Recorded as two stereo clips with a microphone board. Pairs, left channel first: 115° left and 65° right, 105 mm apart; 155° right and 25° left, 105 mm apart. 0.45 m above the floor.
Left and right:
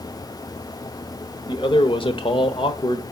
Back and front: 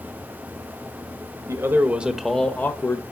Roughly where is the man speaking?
Left.